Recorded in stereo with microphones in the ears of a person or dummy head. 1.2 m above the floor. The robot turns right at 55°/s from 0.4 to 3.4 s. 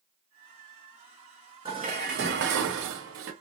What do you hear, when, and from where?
1.6 s dishes clattering: 160° right, 0.9 m; by 3.3 s 70° right, 0.9 m